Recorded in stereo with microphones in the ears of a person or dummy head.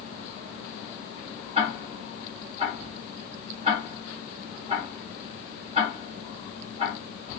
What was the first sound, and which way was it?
Ticking, 35° right (ahead or behind).